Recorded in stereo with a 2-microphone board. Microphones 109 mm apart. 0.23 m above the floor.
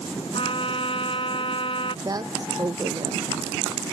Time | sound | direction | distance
0.3 | a trumpet | 55° left (ahead or behind) | ?
2.0 | a woman speaking | 35° right (ahead or behind) | ?